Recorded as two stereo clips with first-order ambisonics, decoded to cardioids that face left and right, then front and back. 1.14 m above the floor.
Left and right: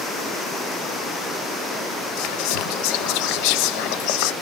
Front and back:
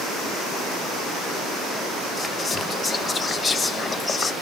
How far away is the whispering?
About 0.6 m.